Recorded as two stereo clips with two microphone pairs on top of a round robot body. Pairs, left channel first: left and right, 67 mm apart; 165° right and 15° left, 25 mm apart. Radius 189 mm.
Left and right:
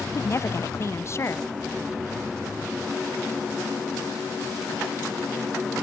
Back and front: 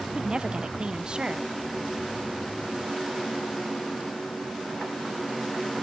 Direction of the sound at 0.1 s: 50° left.